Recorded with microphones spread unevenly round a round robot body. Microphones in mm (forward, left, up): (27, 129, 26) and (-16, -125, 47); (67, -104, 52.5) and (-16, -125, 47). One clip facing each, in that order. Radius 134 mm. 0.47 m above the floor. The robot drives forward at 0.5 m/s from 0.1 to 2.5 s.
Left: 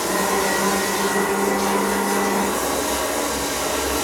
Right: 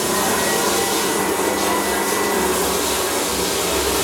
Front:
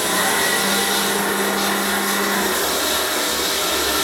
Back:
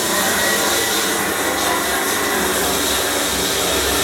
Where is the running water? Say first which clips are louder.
Right 1 dB, back 1 dB; 100° right, 7 m; by 4.0 s 110° right, 7.5 m.